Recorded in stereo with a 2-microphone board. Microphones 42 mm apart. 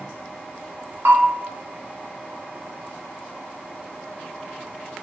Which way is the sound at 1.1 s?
70° right (ahead or behind).